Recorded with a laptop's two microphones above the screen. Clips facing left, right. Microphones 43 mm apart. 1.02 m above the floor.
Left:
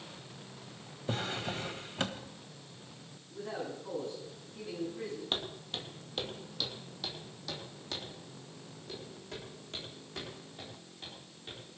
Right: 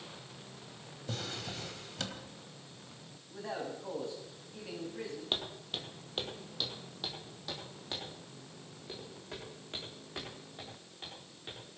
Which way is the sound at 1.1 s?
30° left (ahead or behind).